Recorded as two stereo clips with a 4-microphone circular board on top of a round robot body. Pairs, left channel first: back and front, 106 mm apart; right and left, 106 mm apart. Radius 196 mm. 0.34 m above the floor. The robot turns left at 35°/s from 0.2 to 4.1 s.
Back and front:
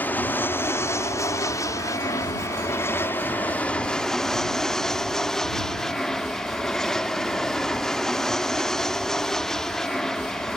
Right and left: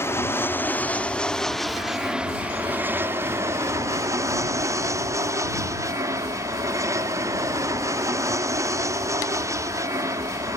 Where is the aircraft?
125° right; by 10.6 s 100° left.